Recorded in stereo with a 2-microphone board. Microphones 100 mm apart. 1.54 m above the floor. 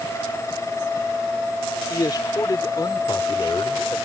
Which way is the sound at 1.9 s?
40° left (ahead or behind).